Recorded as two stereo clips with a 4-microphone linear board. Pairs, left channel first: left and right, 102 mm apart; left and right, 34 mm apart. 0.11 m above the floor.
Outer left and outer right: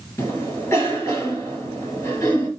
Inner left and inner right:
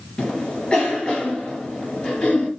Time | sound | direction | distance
0.2 | a cough | 30° left (ahead or behind) | 1.8 m